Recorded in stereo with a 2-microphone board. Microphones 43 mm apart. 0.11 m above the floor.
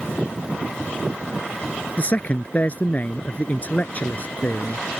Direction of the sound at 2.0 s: 40° left (ahead or behind).